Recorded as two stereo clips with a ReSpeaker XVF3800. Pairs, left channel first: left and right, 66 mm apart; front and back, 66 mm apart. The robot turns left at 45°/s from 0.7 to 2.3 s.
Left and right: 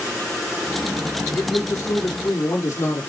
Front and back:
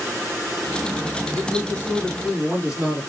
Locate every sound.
1.4 s a man speaking: 150° left, 2.5 m; by 3.0 s 105° left, 2.5 m